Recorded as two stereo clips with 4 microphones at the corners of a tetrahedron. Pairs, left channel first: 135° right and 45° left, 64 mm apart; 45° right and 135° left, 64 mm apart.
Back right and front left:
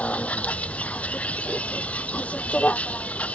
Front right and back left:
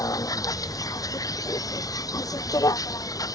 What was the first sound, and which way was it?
A vehicle, 65° right.